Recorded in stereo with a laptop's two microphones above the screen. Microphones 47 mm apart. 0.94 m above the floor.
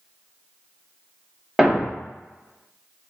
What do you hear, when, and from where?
1.6 s a thud: 5° right (ahead or behind), 0.6 m